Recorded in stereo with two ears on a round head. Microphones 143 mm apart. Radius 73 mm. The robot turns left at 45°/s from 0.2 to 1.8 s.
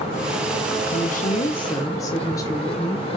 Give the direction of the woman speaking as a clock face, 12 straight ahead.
10 o'clock.